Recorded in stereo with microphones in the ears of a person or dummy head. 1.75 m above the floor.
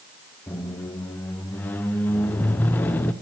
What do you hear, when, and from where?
0.5 s a squeak: 10° left (ahead or behind), 0.6 m